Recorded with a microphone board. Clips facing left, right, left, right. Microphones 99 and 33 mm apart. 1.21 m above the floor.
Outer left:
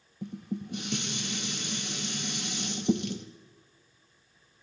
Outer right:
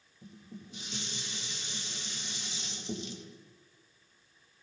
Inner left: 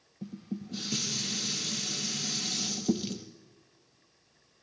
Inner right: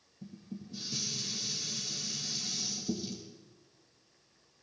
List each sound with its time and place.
0.2 s dishes clattering: 65° left (ahead or behind), 1.0 m